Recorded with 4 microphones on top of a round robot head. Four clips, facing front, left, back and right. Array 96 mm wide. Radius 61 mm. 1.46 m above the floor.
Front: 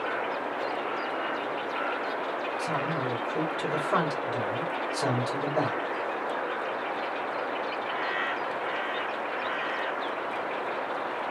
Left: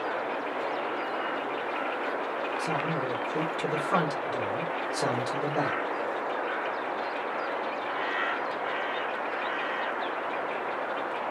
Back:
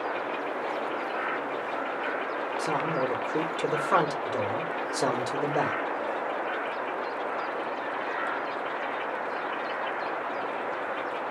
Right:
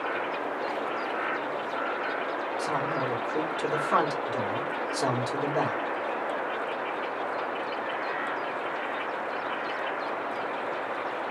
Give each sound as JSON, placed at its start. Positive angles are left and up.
{"t": 2.6, "sound": "a man speaking", "azimuth_deg": 180, "distance_m": 1.9}